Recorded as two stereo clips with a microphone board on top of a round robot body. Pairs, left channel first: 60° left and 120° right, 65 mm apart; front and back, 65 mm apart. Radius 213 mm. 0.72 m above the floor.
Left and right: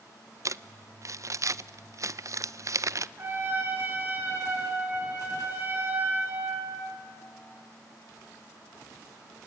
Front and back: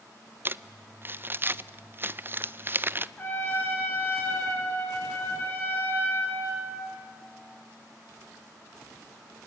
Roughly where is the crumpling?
Behind right.